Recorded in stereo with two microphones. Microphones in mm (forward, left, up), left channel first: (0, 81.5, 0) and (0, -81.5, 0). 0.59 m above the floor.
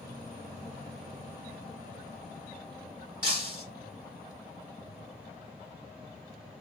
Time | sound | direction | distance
3.2 | breaking glass | 30° right (ahead or behind) | 1.9 m